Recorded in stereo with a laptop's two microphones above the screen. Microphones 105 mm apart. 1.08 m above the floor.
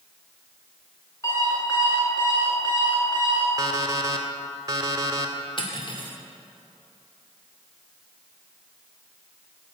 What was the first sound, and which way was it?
An alarm clock, 30° left (ahead or behind).